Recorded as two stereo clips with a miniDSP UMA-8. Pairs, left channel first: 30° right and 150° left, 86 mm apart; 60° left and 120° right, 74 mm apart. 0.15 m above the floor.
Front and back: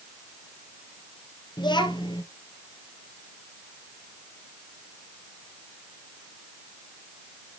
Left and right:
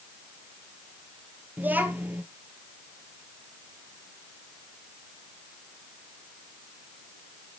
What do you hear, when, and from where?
1.6 s a child speaking: 55° right, 2 m